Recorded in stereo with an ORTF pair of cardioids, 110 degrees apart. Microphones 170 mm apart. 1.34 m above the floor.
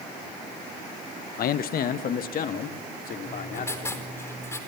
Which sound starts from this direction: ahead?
Writing, at 3.2 s.